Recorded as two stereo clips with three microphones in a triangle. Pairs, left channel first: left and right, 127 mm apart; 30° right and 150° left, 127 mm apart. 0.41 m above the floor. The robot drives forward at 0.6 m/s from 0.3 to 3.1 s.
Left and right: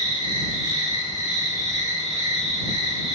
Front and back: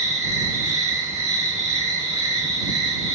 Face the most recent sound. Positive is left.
turn(degrees=-155)